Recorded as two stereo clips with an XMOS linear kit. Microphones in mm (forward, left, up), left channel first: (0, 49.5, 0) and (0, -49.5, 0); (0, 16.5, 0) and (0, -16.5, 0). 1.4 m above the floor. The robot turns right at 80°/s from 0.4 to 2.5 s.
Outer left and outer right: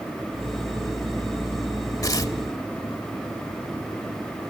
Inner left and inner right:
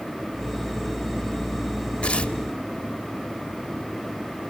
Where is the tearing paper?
35° left (ahead or behind), 1.3 m.